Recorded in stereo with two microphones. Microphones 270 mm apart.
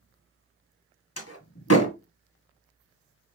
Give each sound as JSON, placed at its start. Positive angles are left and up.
{"t": 1.2, "sound": "a door slam", "side_deg": 65, "distance_m": 1.5}